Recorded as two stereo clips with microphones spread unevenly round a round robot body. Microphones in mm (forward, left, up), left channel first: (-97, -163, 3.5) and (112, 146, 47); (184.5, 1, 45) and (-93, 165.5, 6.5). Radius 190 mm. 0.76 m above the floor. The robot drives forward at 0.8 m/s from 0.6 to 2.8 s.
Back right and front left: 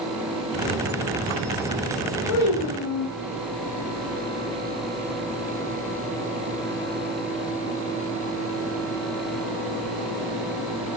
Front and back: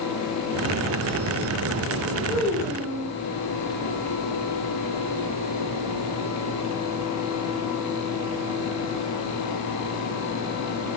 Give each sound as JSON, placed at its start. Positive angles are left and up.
{"t": 2.3, "sound": "a child speaking", "azimuth_deg": -100, "distance_m": 1.0}